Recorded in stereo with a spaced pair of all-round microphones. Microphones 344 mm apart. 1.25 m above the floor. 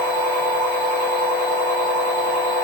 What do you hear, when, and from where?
0.0 s a machine running: 75° left (ahead or behind), 3 m